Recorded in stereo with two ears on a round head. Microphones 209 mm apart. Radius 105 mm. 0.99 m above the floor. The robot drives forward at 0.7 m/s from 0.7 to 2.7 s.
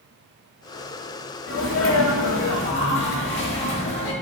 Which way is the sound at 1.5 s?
60° left (ahead or behind).